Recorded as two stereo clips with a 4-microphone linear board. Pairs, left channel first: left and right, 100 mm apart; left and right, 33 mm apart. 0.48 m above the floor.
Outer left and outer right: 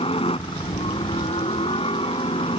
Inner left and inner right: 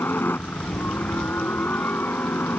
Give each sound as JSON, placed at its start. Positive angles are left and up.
{"t": 0.0, "sound": "a helicopter", "side_deg": 70}